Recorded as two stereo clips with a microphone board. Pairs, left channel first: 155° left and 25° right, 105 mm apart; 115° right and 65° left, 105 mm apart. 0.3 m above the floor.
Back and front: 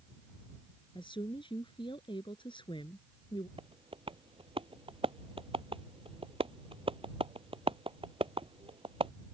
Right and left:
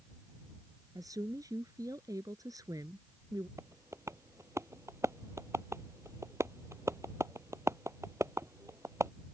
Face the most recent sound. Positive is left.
turn(degrees=5)